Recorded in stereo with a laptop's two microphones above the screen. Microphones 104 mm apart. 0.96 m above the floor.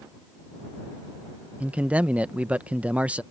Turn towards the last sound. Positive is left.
turn(degrees=-10)  # may be behind; listen again after turning